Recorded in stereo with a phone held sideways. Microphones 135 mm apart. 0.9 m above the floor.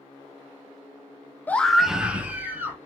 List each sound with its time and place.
1.5 s a scream: 15° left (ahead or behind), 0.5 m; by 2.8 s 15° right (ahead or behind), 1.6 m